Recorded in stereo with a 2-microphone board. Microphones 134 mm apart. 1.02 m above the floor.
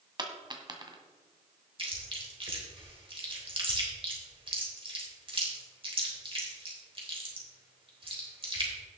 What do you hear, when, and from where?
0.2 s a dropped coin: 35° right (ahead or behind), 1.6 m
1.8 s chewing: 45° right (ahead or behind), 3.5 m